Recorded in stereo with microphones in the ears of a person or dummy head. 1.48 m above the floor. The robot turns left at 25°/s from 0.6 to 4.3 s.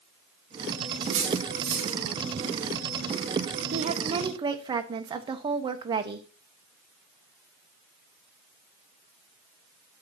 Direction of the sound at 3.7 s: 45° right (ahead or behind).